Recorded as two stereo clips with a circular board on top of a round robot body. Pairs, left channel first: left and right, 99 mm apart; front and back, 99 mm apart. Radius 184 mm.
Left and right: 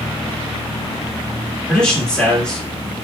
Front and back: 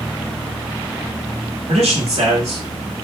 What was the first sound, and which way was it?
A man speaking, 170° left.